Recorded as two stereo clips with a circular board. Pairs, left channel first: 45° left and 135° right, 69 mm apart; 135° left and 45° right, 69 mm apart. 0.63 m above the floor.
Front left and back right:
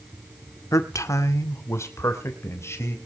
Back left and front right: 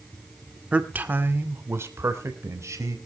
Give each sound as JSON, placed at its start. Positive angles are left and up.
{"t": 0.7, "sound": "a man speaking", "azimuth_deg": 20, "distance_m": 1.4}